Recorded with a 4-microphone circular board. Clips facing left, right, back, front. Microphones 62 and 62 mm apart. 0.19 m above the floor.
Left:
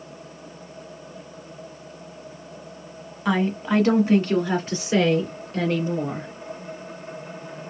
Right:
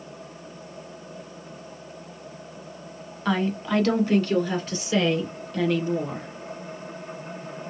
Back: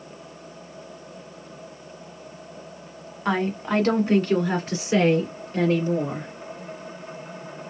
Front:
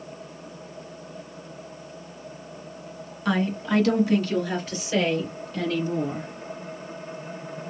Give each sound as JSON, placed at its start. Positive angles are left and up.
{"t": 3.2, "sound": "a woman speaking", "azimuth_deg": 160, "distance_m": 1.4}